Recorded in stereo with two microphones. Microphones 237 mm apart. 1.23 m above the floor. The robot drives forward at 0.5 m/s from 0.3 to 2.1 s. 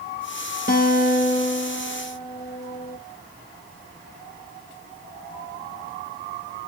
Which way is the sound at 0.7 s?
35° left (ahead or behind).